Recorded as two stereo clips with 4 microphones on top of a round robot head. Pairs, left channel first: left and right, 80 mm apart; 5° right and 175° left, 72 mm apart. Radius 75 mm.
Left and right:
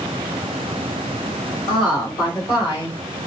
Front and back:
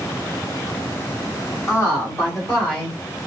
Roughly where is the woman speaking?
Ahead left.